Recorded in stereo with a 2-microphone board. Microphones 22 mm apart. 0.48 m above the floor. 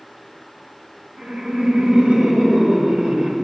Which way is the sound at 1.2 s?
75° right (ahead or behind).